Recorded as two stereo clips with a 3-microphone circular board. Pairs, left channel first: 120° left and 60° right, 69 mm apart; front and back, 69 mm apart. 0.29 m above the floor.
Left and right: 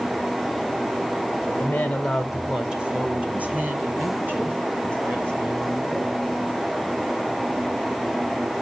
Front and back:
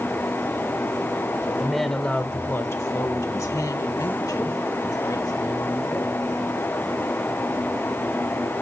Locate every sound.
1.6 s a woman speaking: 105° left, 0.9 m; by 6.2 s 5° right, 4 m